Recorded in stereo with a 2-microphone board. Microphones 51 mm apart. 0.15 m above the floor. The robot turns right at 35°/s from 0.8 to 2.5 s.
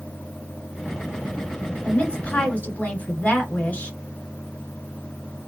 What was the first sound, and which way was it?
A woman speaking, 20° left (ahead or behind).